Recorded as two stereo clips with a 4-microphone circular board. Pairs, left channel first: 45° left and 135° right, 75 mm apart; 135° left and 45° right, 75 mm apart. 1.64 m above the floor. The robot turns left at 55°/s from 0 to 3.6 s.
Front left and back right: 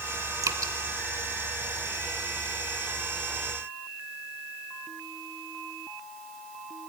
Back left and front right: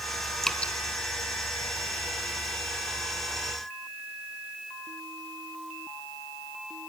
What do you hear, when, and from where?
0.4 s dripping: 145° right, 1.5 m; by 0.7 s 160° right, 1.5 m